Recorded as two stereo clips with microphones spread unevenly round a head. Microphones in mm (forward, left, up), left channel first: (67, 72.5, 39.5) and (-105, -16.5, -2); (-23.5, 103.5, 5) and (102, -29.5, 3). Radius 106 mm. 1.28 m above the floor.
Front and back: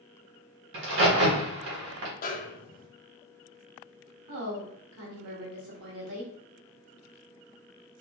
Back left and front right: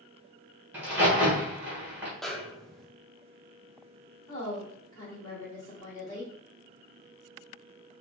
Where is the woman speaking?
150° right, 1.7 m.